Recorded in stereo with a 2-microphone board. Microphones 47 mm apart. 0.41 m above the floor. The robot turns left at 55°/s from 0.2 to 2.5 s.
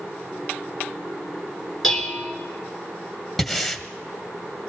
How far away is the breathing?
About 1.0 m.